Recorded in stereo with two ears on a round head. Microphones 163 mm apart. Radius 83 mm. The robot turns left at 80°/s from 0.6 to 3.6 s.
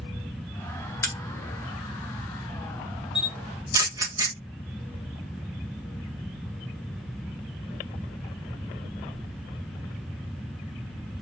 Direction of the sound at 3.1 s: 5° right (ahead or behind).